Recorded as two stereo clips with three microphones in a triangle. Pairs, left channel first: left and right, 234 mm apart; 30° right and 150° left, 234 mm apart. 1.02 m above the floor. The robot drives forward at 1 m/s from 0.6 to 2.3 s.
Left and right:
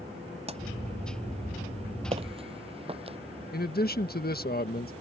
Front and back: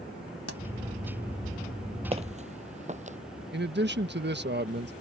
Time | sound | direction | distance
0.5 | a pop | 25° right | ?
2.1 | footsteps | 150° right | ?
3.5 | a man speaking | 125° left | ?